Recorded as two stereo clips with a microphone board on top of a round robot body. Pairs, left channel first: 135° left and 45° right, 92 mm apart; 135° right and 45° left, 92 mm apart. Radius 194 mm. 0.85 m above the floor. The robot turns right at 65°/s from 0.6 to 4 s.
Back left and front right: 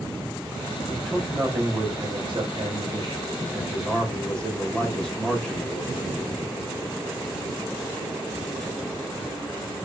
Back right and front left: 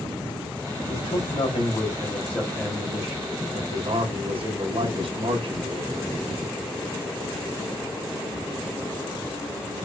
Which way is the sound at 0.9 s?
150° right.